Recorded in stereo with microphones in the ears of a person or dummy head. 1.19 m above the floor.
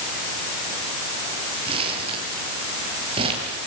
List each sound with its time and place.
1.6 s crumpling: 35° right (ahead or behind), 8 m